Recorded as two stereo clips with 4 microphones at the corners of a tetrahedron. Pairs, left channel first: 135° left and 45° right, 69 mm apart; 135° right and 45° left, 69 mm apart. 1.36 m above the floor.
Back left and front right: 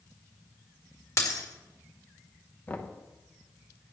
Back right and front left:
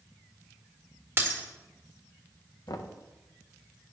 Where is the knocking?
160° right, 0.9 m.